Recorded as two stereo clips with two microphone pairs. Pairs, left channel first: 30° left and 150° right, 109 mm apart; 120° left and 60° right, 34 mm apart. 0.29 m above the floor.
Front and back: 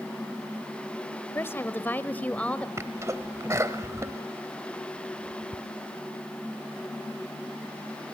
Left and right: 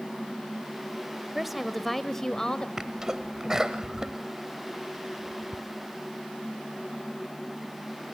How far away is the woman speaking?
About 1.4 m.